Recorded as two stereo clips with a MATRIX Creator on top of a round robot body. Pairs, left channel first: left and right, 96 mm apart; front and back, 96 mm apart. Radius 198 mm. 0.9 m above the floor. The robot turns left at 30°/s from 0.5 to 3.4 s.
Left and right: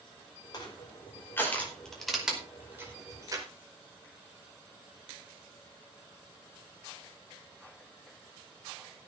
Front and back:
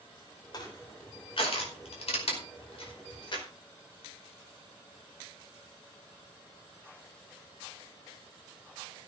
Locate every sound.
0.5 s crushing: 45° left, 5 m; by 3.5 s 40° right, 5 m